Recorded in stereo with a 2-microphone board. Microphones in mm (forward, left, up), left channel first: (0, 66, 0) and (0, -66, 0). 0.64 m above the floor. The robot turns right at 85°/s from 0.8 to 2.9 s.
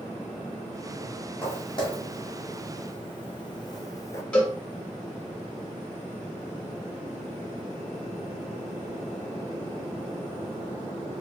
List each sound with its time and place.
1.4 s footsteps: 10° left (ahead or behind), 1.6 m; by 4.2 s 20° left (ahead or behind), 0.7 m
4.3 s a cowbell: 10° left (ahead or behind), 1.7 m